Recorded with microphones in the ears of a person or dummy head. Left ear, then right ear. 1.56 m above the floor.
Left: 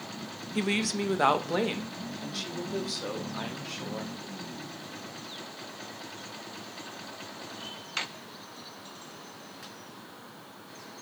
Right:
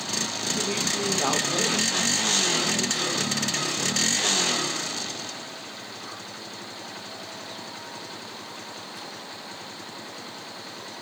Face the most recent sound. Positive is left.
turn(degrees=85)